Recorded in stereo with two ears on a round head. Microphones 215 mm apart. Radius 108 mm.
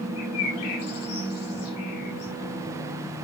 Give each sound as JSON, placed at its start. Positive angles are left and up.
{"t": 0.2, "sound": "a bird", "side_deg": 75, "distance_m": 4.5}